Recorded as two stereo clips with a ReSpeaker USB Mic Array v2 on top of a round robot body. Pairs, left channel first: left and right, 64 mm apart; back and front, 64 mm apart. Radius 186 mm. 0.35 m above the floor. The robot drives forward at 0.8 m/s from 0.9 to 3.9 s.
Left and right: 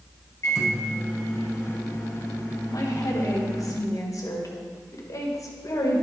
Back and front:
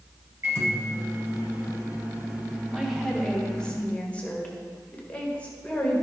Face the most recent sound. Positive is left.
turn(degrees=110)